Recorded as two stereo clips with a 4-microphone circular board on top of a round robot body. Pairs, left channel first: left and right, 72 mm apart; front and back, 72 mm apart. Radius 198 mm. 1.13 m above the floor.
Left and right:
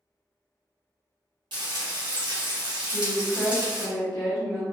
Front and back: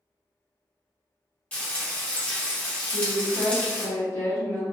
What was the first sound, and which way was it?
Frying, 75° right.